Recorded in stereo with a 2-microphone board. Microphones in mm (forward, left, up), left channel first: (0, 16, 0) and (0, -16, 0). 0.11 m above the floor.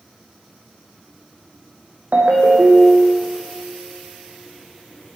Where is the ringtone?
60° right (ahead or behind), 2.5 m.